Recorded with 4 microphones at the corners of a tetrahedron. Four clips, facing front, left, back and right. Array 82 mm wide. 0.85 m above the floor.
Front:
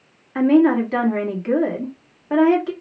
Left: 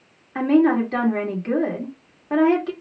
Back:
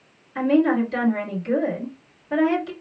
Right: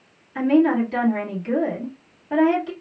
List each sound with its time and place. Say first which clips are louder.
0.3 s a woman speaking: left 1 dB, front 4 dB; 30° left, 1.6 m